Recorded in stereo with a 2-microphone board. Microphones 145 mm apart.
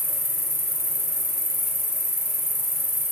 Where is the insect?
25° left (ahead or behind), 3 m.